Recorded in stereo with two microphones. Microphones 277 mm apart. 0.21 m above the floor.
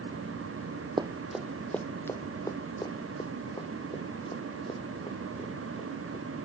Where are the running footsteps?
15° right (ahead or behind); by 6.2 s 20° left (ahead or behind).